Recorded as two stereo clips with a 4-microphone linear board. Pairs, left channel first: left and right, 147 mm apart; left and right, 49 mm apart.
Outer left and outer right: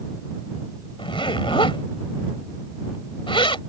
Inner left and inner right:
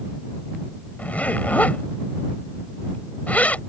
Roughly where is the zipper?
Left.